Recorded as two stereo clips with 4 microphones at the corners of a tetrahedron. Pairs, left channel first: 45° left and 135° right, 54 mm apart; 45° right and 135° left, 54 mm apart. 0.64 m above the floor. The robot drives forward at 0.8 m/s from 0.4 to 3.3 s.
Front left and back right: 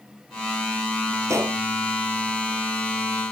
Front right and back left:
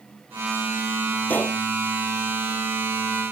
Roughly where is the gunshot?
Right.